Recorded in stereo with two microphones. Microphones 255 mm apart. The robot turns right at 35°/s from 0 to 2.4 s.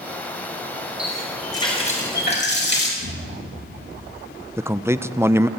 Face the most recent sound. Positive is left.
turn(degrees=-10)  # may be behind; listen again after turning